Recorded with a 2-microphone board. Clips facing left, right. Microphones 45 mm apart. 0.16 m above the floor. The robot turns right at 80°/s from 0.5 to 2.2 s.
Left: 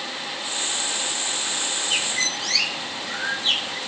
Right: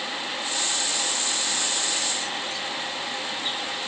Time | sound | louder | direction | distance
1.9 | a bird | left 4 dB | 80° left | ?